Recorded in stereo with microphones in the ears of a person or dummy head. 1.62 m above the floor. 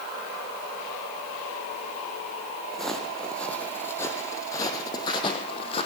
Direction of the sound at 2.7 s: 5° left (ahead or behind).